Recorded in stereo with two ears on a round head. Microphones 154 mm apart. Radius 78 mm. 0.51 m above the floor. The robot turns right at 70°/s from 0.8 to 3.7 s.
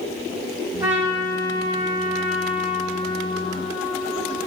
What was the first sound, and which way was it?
A trumpet, 20° right.